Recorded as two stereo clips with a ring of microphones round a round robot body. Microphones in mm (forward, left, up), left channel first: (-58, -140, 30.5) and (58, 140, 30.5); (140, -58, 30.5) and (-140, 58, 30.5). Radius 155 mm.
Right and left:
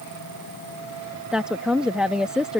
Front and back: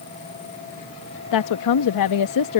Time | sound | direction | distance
1.3 | a woman speaking | 20° right | ?